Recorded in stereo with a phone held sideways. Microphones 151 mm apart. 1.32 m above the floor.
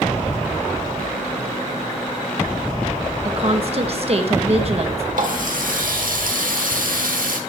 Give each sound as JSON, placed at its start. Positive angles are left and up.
{"t": 3.2, "sound": "a woman speaking", "side_deg": -45, "distance_m": 1.2}
{"t": 5.1, "sound": "a running tap", "side_deg": -75, "distance_m": 1.6}